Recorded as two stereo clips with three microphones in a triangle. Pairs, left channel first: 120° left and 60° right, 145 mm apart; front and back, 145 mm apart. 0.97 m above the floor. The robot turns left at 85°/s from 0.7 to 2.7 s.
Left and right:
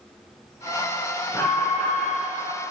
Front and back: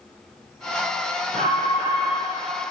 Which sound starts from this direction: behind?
An alarm, at 1.3 s.